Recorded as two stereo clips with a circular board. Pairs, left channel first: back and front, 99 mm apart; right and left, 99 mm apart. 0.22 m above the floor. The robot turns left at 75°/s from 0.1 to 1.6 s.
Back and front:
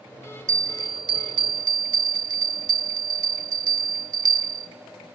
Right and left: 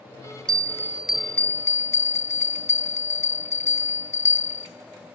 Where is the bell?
50° left, 0.6 m; by 4.7 s 30° right, 0.6 m.